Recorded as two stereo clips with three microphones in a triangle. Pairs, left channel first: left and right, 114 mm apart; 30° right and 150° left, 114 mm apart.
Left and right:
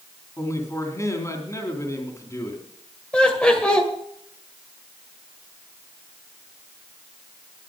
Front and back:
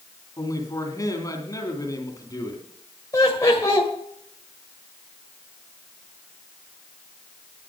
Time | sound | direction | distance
0.4 | a man speaking | 25° left | 3 m
3.1 | laughter | 15° left | 1.8 m